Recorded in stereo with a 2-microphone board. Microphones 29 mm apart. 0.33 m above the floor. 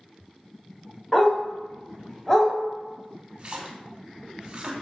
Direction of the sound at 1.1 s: 15° left (ahead or behind).